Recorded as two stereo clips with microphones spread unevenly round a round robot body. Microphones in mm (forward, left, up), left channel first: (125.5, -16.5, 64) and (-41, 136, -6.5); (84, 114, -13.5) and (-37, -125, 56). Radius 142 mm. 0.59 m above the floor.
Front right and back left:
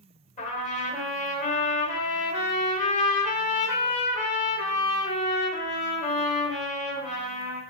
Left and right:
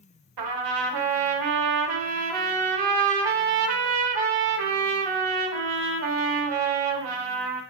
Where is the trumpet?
110° right, 1.1 m.